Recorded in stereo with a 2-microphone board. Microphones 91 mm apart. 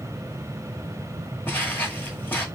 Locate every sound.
1.5 s footsteps: 20° left (ahead or behind), 1.2 m